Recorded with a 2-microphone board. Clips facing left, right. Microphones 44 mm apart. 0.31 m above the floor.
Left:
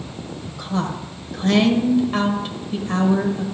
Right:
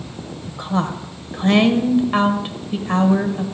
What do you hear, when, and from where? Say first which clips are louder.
0.5 s a woman speaking: right 3 dB; 25° right (ahead or behind), 1.4 m